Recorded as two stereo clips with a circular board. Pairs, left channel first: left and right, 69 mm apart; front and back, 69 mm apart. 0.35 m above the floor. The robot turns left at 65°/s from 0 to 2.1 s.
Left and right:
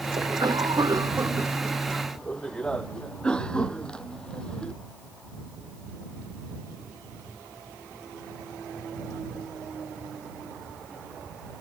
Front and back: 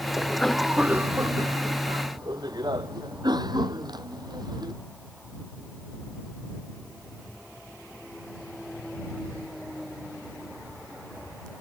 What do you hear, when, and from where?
0.2 s a cough: 65° right; by 4.7 s 170° left